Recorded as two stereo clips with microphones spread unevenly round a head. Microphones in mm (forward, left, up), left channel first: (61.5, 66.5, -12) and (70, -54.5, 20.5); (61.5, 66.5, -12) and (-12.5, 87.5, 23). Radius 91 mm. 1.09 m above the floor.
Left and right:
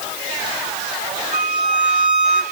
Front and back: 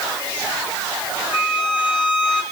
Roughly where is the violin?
Behind right.